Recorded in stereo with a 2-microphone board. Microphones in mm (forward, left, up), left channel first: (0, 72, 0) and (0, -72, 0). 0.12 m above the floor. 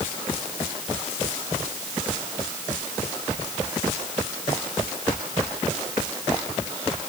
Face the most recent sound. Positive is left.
No sound to turn to.